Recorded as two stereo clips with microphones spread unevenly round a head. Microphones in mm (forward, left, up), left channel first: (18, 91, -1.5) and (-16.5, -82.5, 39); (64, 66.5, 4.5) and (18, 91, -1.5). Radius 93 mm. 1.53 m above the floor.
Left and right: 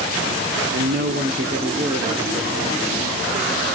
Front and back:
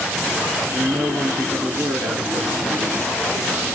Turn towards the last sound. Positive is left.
turn(degrees=180)